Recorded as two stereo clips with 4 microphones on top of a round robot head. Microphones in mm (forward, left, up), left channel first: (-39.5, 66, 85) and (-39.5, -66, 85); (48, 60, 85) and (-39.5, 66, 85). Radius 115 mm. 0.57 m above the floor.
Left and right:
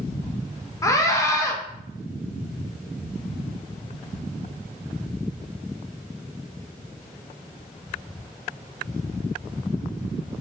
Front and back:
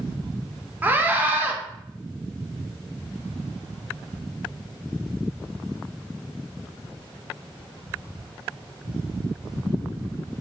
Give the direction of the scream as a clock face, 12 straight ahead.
8 o'clock.